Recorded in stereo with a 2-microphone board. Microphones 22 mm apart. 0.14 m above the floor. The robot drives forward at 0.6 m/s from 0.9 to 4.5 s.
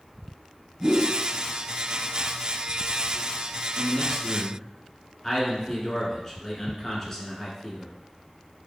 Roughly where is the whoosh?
Centre.